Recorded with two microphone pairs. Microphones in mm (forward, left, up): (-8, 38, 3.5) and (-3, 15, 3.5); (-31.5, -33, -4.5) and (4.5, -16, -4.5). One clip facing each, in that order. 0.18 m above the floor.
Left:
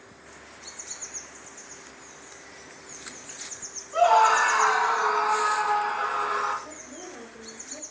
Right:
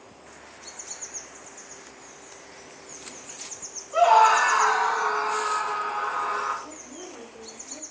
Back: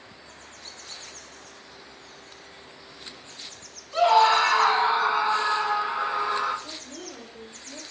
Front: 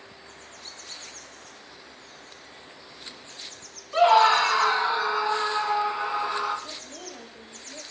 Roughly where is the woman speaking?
Behind right.